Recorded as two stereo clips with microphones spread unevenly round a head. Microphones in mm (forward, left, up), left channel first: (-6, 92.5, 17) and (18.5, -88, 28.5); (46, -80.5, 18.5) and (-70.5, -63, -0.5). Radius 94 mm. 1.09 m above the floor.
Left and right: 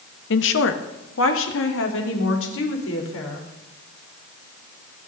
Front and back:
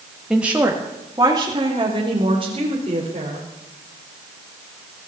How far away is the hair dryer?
No hair dryer in this recording.